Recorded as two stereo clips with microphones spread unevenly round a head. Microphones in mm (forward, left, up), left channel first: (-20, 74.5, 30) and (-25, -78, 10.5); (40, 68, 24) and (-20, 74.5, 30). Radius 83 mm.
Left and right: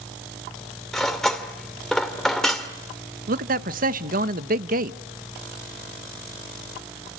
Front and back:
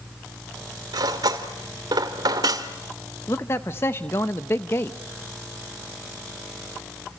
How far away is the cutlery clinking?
About 2.5 m.